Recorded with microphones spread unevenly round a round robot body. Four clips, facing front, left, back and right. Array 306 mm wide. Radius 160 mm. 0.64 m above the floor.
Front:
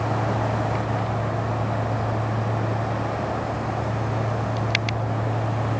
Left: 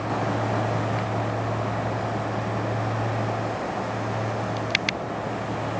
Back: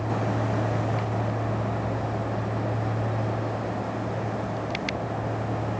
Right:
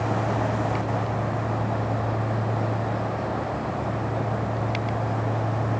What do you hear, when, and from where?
Only background noise.